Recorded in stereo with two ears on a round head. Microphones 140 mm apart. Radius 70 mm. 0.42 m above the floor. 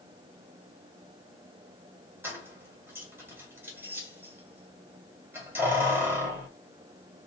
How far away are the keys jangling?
About 1.6 m.